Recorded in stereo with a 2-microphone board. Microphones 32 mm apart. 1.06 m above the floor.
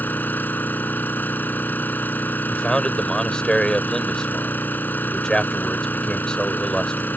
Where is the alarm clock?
No alarm clock in this recording.